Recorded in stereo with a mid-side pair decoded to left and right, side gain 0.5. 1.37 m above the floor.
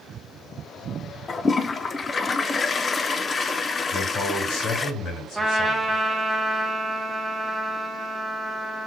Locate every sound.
1.3 s a toilet flushing: 30° left, 0.7 m
3.9 s a man speaking: 60° left, 5.5 m
5.3 s a trumpet: 10° right, 1.8 m